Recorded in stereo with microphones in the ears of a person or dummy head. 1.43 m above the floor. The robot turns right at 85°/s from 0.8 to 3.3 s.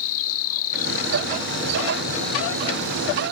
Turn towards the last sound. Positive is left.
turn(degrees=-95)